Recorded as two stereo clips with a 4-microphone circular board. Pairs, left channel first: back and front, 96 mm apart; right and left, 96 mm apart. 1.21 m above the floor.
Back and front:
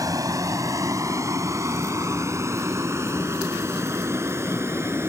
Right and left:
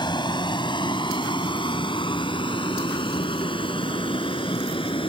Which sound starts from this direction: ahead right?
A vehicle, at 0.0 s.